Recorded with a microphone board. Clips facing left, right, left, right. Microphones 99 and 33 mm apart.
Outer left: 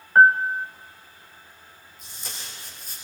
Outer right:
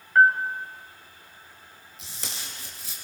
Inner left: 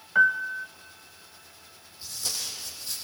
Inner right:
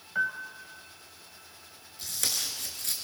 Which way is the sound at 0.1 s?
35° left (ahead or behind).